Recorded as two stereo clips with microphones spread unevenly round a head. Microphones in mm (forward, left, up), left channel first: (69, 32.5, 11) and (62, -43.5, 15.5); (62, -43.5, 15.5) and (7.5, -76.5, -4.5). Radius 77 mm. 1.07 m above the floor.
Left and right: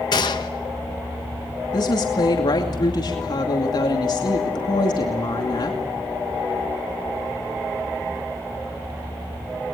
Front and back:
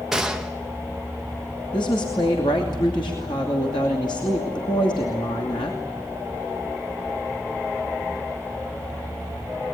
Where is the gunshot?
130° left, 0.7 m.